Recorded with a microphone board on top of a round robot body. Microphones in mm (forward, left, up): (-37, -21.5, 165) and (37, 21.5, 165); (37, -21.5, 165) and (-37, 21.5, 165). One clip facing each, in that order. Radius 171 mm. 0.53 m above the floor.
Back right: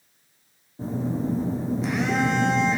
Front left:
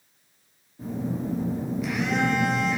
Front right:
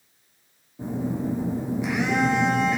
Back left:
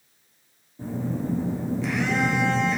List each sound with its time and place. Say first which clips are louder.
0.8 s a phone buzzing: back right 3 dB, front right 2 dB; 100° right, 1.5 m